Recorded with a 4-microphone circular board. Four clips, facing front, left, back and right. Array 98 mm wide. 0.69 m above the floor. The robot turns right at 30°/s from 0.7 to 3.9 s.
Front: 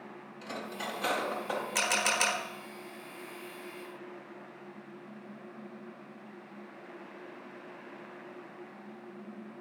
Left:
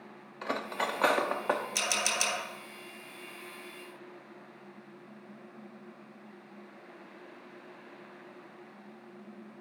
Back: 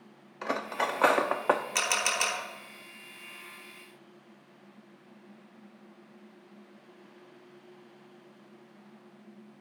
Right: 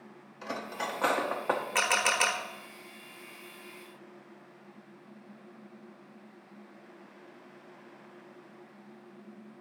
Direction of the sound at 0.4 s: 155° left.